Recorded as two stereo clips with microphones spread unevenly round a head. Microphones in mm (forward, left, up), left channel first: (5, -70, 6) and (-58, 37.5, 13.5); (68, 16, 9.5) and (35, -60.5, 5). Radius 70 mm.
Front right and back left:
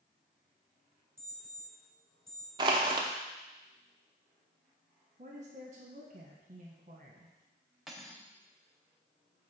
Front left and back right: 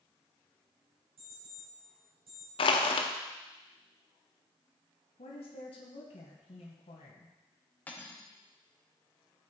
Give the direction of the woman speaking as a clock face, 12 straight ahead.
9 o'clock.